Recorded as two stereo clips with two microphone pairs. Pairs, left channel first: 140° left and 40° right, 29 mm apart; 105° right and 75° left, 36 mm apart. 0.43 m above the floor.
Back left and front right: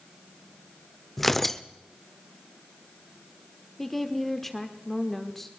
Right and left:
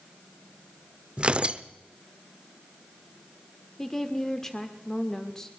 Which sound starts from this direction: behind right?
A woman speaking, at 3.8 s.